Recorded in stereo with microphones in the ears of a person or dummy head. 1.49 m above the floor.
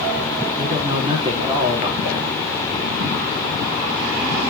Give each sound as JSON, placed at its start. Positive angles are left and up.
{"t": 0.6, "sound": "a man speaking", "side_deg": -35, "distance_m": 4.0}